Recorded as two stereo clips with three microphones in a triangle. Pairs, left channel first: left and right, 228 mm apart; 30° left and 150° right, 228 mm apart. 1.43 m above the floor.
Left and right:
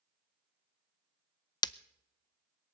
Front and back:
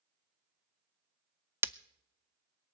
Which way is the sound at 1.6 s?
145° left.